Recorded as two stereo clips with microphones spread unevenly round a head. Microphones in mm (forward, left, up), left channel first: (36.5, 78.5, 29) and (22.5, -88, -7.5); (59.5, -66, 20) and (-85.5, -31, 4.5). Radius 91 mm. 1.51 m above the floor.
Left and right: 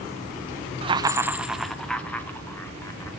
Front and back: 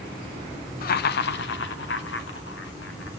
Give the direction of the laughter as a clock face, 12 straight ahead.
1 o'clock.